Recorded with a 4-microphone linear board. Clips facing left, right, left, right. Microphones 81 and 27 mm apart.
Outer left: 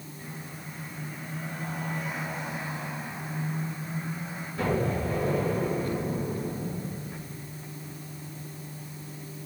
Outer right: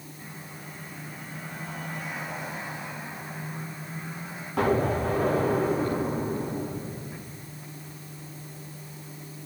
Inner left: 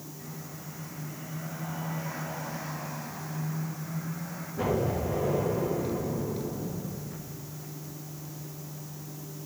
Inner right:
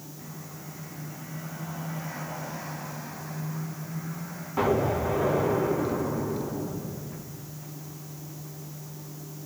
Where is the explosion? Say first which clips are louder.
Outer right 4 dB, inner right 4 dB; 80° right, 5.5 m.